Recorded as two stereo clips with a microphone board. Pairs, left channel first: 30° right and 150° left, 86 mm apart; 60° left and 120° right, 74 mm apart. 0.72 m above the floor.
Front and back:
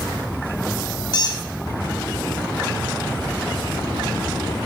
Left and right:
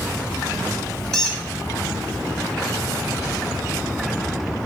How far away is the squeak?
About 0.6 m.